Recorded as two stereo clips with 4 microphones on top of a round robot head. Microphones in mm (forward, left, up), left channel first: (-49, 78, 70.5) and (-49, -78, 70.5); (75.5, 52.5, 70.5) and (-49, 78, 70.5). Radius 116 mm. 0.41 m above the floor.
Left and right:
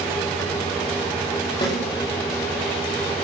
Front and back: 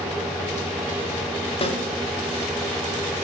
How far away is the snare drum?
About 9 m.